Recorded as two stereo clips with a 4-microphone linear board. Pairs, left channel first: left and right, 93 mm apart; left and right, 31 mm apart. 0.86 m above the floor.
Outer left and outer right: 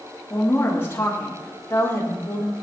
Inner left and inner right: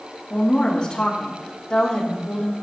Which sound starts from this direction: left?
A woman speaking, at 0.3 s.